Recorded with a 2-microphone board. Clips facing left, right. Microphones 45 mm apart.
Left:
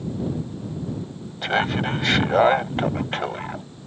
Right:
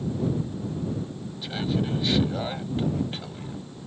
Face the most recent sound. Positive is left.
turn(degrees=60)  # may be behind; listen again after turning